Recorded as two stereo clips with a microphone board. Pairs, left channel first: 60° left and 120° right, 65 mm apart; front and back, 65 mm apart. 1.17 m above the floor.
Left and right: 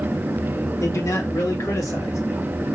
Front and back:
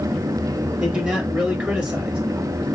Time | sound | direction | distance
0.8 | a man speaking | 105° left | 1.6 m